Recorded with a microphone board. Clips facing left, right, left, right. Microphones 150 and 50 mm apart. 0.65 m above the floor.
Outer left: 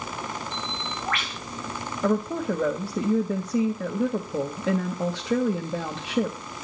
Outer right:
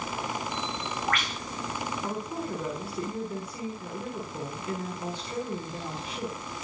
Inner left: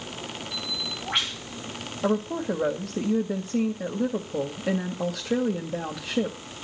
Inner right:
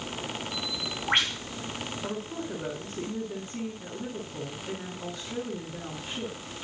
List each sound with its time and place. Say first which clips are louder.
0.5 s a bird: even, even; 40° right (ahead or behind), 7 m
2.0 s a woman speaking: outer left 9 dB, inner left 13 dB; 80° left, 2.5 m